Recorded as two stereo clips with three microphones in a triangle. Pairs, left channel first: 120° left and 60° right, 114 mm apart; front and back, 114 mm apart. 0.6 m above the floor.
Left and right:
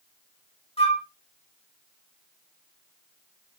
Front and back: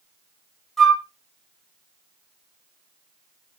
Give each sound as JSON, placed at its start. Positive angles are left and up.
{"t": 0.8, "sound": "a flute", "azimuth_deg": 85, "distance_m": 1.2}